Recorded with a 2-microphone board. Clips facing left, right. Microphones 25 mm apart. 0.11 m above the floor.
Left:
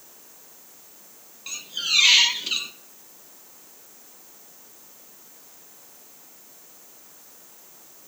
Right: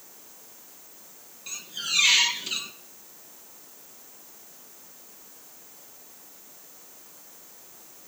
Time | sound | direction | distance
1.5 | a squeak | 25° left (ahead or behind) | 0.6 m